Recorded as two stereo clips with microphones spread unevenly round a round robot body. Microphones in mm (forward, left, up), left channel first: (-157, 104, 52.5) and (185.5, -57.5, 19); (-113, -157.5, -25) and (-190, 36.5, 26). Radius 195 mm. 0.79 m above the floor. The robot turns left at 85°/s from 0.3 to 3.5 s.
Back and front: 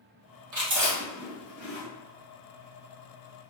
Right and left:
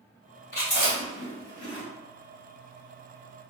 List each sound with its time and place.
0.5 s chewing: 30° right, 1.6 m; by 1.8 s 145° right, 1.6 m